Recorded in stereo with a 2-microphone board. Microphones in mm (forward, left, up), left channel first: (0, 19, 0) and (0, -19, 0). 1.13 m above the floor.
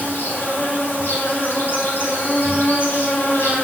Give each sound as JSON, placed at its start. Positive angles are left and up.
{"t": 0.0, "sound": "an insect", "side_deg": 75, "distance_m": 3.5}